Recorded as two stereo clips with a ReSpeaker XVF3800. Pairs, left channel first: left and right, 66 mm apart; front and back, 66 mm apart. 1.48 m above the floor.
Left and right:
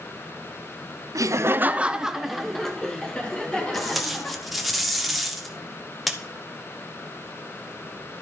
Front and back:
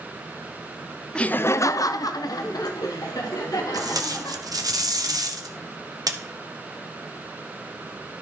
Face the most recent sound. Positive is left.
turn(degrees=180)